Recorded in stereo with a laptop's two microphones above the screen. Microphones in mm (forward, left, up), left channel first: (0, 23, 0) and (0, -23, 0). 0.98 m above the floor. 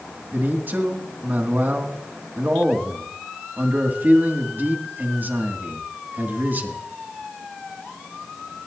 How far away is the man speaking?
About 2 m.